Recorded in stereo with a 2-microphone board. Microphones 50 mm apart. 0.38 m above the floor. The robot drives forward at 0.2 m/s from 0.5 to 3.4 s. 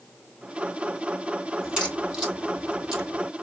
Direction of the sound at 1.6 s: 15° right (ahead or behind).